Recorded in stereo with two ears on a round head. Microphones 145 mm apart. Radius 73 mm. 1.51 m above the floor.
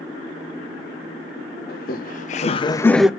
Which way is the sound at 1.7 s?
60° left (ahead or behind).